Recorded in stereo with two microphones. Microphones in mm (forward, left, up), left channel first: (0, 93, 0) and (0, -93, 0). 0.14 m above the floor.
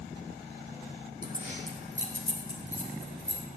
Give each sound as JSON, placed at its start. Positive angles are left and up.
{"t": 1.2, "sound": "keys jangling", "side_deg": -45, "distance_m": 4.0}